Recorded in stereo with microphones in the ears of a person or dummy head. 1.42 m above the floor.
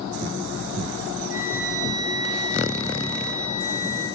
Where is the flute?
65° right (ahead or behind), 9 m.